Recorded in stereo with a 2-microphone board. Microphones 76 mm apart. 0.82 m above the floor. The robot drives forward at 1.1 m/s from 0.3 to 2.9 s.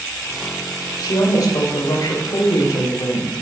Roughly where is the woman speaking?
Left.